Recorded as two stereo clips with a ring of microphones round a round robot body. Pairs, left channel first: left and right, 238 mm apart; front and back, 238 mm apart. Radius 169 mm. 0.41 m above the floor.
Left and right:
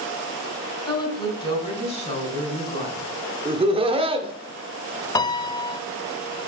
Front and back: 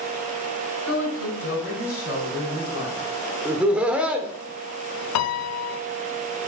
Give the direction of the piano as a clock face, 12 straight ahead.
12 o'clock.